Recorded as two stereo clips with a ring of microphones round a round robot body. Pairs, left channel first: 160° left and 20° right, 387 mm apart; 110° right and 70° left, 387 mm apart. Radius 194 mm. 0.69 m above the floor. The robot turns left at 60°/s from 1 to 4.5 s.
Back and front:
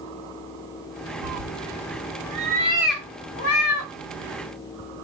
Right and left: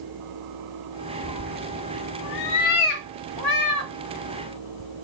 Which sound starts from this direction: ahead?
A cat meowing, at 1.2 s.